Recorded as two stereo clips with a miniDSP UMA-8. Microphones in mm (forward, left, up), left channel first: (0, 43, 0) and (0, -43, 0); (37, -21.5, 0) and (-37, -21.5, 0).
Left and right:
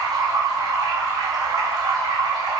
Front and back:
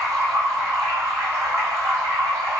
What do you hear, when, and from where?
0.0 s running water: 130° right, 2.5 m